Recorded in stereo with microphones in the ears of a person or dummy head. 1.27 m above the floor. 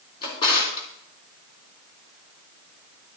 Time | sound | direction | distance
0.2 | a drawer | 25° left (ahead or behind) | 3.5 m